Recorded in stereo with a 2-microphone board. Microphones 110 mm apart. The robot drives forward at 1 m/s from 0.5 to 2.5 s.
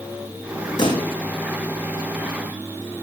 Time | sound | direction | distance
0.8 | a pop | 45° left (ahead or behind) | 7.5 m